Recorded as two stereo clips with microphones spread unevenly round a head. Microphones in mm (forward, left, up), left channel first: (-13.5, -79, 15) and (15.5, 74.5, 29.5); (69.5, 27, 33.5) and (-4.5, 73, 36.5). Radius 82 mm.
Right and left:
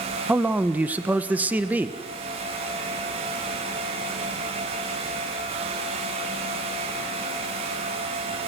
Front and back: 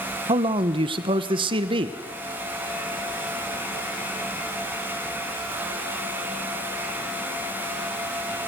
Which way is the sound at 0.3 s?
160° left.